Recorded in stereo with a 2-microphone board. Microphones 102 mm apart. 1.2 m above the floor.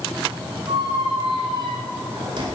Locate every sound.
0.7 s a squeak: 55° right (ahead or behind), 1.5 m